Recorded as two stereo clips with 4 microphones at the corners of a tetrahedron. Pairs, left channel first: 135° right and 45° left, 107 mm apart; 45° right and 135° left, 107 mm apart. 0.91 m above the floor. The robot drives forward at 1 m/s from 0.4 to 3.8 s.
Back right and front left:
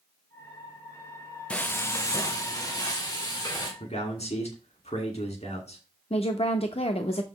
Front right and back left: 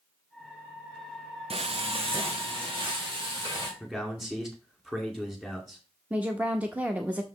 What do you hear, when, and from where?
1.5 s frying: 145° left, 0.5 m; by 3.7 s 175° left, 2.5 m
3.8 s a man speaking: 140° right, 1.8 m
6.1 s a woman speaking: 150° right, 0.7 m